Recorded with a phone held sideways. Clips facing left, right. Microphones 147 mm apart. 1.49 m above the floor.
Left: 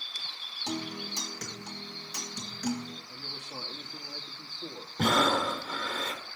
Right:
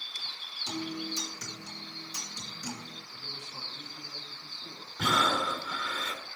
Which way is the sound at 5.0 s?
45° left (ahead or behind).